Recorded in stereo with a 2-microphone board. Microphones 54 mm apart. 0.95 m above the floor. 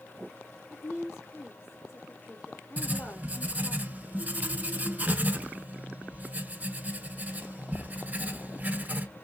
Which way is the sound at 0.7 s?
50° left (ahead or behind).